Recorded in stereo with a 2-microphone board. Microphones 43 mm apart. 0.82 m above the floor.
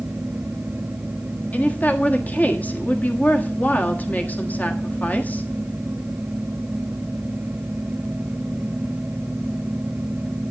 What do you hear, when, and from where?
1.5 s a woman speaking: 40° left (ahead or behind), 1.4 m